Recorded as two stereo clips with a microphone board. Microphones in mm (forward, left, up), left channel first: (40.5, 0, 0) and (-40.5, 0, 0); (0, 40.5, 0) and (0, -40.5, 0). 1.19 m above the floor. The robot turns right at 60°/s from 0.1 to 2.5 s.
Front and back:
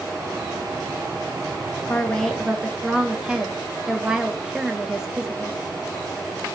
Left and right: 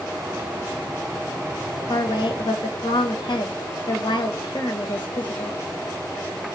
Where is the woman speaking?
65° left, 1.4 m; by 5.6 s 100° left, 1.4 m.